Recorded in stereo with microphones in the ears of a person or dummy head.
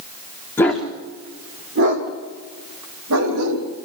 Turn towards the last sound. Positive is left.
turn(degrees=-75)  # may be behind; listen again after turning